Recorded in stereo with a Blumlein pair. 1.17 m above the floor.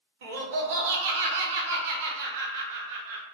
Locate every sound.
0.2 s laughter: 55° right, 0.8 m